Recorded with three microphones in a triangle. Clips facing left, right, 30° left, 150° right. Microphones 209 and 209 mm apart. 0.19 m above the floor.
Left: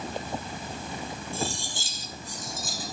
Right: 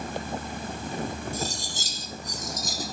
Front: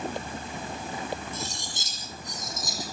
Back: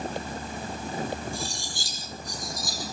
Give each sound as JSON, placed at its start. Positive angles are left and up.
{"t": 1.3, "sound": "cutlery clinking", "azimuth_deg": -40, "distance_m": 4.5}